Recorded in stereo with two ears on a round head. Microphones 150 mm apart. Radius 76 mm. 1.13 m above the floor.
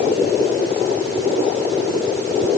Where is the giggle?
I don't hear a giggle.